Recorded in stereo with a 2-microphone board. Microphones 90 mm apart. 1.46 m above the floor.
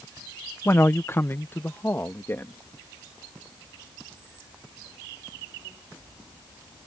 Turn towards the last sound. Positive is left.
turn(degrees=25)  # may be behind; listen again after turning